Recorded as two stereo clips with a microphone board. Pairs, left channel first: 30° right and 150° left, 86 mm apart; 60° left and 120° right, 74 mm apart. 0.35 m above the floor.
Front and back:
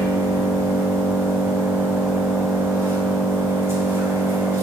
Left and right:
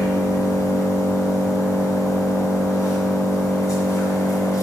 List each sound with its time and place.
0.0 s an engine running: 95° left, 2 m